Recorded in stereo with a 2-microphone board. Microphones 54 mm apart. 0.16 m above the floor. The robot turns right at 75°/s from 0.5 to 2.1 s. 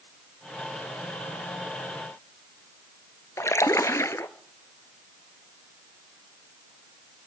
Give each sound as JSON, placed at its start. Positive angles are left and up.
{"t": 3.4, "sound": "a splash", "side_deg": 70, "distance_m": 0.7}